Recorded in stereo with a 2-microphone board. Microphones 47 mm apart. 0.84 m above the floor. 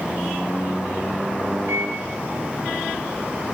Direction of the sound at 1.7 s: 65° right (ahead or behind).